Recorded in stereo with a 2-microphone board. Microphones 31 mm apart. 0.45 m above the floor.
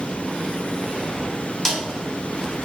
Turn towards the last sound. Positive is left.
turn(degrees=5)  # may be behind; listen again after turning